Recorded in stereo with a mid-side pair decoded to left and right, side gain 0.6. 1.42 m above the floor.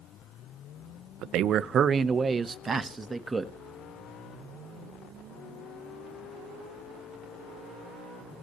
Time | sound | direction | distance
1.2 | a man speaking | 60° right | 0.7 m